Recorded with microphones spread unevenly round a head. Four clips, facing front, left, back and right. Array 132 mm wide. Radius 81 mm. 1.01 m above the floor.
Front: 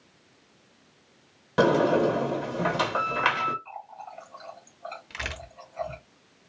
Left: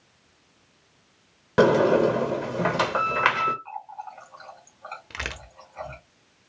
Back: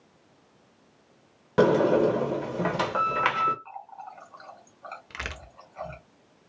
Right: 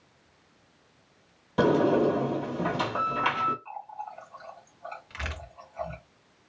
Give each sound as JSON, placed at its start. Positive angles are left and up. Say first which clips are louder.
{"t": 1.6, "sound": "a sliding door", "louder": "left 4 dB, back 1 dB", "azimuth_deg": 90, "distance_m": 1.3}
{"t": 3.6, "sound": "a running tap", "louder": "left 2 dB, even", "azimuth_deg": 110, "distance_m": 2.5}
{"t": 5.1, "sound": "a crack", "louder": "left 3 dB, back 1 dB", "azimuth_deg": 120, "distance_m": 0.9}